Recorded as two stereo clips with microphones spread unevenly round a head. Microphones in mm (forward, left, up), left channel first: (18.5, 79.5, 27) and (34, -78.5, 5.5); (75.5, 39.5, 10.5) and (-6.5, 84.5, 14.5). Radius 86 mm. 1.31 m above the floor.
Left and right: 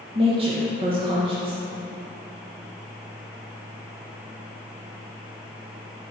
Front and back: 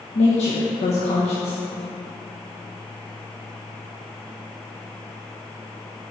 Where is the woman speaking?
30° right, 1.2 m.